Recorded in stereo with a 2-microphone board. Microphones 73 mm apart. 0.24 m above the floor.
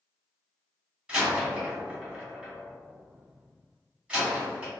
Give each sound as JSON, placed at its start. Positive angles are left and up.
{"t": 1.1, "sound": "a door slam", "side_deg": -15, "distance_m": 1.4}